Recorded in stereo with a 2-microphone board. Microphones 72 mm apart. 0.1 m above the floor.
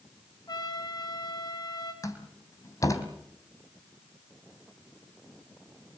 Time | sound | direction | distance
0.5 | a trumpet | 65° left (ahead or behind) | 7.5 m
2.0 | a door slam | 50° left (ahead or behind) | 3.5 m